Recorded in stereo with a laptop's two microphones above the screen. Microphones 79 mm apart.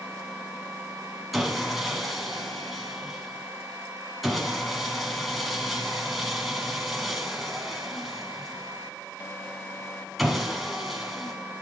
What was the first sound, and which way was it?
Sawing, centre (ahead or behind).